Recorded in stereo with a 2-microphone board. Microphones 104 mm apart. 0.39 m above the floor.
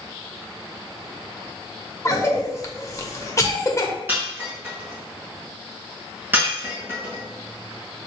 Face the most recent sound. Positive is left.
turn(degrees=-20)  # may be behind; listen again after turning